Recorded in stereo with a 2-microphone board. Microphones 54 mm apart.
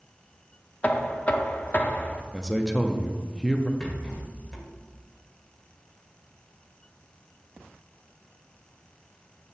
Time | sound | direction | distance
0.8 | knocking | 30° left (ahead or behind) | 0.5 m
2.3 | a man speaking | 5° right (ahead or behind) | 0.7 m
3.8 | a rattle | 10° left (ahead or behind) | 1.8 m